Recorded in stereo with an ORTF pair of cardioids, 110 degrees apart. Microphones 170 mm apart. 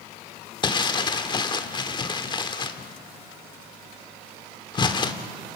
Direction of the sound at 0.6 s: 30° left.